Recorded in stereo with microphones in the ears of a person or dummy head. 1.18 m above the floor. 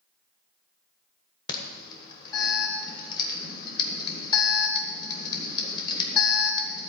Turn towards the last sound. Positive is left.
turn(degrees=20)  # may be behind; listen again after turning